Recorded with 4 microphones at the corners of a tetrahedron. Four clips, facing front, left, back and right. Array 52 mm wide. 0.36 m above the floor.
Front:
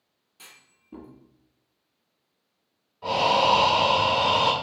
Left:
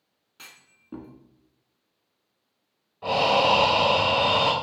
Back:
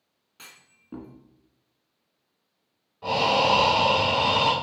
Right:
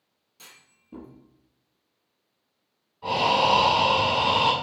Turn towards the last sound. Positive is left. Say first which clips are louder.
# left 1 dB, front 1 dB
turn(degrees=105)